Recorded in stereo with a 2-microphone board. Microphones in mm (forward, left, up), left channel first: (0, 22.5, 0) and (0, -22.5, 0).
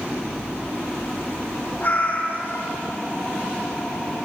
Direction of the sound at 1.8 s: 45° left (ahead or behind).